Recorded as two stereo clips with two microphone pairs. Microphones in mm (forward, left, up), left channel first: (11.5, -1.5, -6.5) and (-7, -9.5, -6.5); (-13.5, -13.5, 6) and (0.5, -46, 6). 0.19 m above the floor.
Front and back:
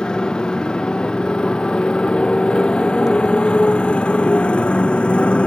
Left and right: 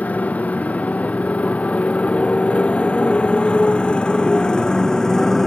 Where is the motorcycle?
70° left; by 5.5 s 35° left.